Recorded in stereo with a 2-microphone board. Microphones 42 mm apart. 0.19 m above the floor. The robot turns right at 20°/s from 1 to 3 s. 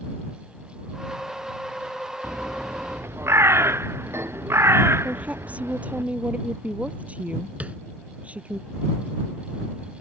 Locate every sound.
2.2 s a bird: 85° right; by 6.0 s 70° right (ahead or behind)
5.0 s a woman speaking: 30° right (ahead or behind)
7.6 s tapping: 30° right (ahead or behind)